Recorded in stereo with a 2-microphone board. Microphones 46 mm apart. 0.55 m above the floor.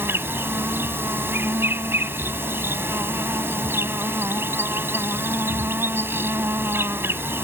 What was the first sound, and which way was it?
An insect, 55° right (ahead or behind).